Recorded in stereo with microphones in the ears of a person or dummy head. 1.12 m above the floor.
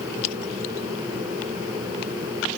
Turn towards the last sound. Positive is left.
No sound to turn to.